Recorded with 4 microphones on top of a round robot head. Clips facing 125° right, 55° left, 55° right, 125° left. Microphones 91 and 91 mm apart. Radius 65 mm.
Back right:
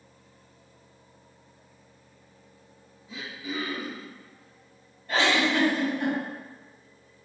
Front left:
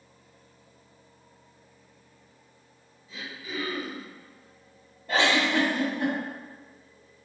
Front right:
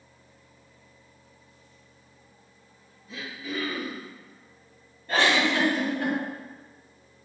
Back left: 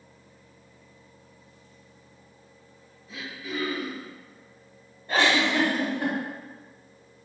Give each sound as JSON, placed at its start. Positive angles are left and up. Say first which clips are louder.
{"t": 3.1, "sound": "throat clearing", "louder": "back right 3 dB, even", "azimuth_deg": -145, "distance_m": 1.2}
{"t": 5.1, "sound": "a giggle", "louder": "even, even", "azimuth_deg": 50, "distance_m": 2.0}